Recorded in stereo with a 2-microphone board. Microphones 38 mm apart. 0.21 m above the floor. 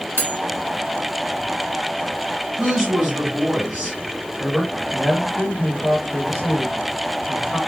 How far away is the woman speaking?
About 1.9 m.